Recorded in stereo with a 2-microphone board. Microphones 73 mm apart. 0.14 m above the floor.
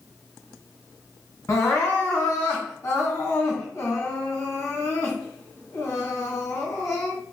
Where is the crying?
35° left (ahead or behind), 3 m.